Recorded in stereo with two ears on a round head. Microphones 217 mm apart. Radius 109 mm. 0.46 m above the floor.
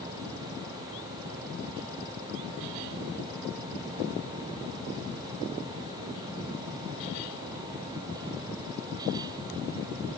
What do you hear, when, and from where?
Only background noise.